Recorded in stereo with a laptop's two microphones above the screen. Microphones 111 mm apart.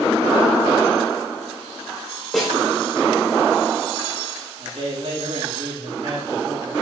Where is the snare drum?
Centre (ahead or behind), 2 m.